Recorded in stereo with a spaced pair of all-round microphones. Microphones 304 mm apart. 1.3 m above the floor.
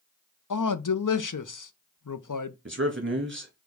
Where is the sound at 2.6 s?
40° right (ahead or behind), 1.6 m.